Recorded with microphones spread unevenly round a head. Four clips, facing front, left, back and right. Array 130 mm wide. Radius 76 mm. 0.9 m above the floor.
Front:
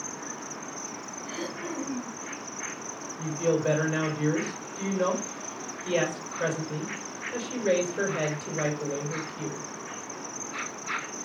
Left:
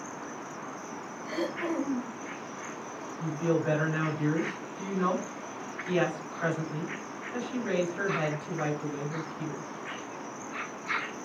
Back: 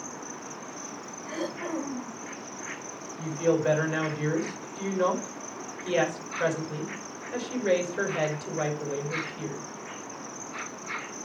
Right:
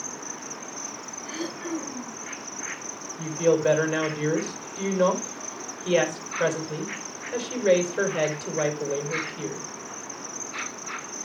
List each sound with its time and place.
0.0 s an insect: 65° right, 2.5 m
1.2 s throat clearing: 145° left, 2.0 m
3.2 s a woman speaking: 85° right, 4 m